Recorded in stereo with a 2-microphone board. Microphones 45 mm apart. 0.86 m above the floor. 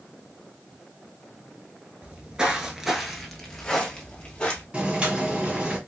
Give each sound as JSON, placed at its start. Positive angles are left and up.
{"t": 2.0, "sound": "footsteps", "side_deg": -30, "distance_m": 0.9}
{"t": 4.7, "sound": "boiling", "side_deg": -30, "distance_m": 1.9}